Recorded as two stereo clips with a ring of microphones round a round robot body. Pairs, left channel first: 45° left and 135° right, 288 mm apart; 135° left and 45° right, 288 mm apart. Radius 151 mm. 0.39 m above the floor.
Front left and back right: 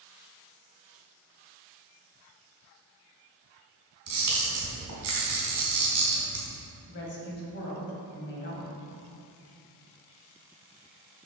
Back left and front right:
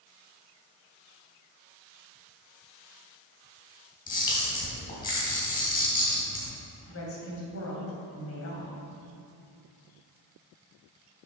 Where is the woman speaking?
95° left, 2 m.